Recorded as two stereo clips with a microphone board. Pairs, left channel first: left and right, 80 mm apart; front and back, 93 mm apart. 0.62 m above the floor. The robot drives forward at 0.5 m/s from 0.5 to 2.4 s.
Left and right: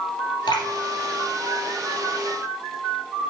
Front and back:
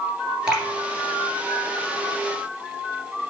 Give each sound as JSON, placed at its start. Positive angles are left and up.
{"t": 0.5, "sound": "dripping", "azimuth_deg": 95, "distance_m": 2.5}